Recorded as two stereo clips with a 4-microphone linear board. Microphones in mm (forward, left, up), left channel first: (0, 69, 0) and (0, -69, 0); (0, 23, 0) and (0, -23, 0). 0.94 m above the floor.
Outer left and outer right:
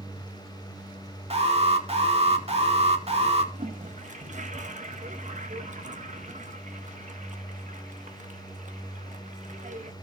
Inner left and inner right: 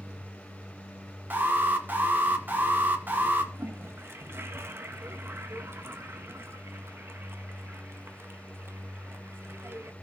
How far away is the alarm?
About 2 m.